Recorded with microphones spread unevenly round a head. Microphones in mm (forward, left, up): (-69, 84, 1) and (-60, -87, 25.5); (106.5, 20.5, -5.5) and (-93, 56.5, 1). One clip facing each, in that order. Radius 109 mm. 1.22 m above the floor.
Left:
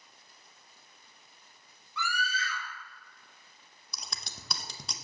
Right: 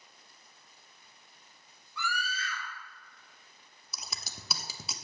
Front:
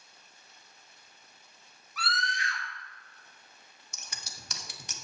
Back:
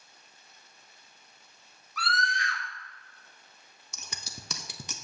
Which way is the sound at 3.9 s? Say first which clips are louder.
Even, back 4 dB; 170° right.